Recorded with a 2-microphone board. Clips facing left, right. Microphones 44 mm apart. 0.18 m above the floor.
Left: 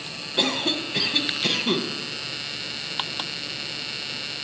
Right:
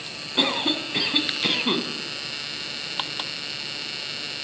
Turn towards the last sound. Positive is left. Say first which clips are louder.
# right 1 dB
turn(degrees=-15)  # may be behind; listen again after turning